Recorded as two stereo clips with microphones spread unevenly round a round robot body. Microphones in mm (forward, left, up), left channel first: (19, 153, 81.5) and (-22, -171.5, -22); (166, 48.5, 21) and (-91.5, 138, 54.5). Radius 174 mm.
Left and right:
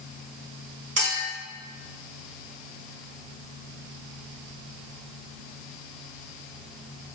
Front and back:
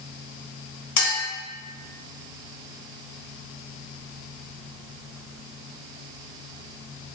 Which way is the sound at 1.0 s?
40° right.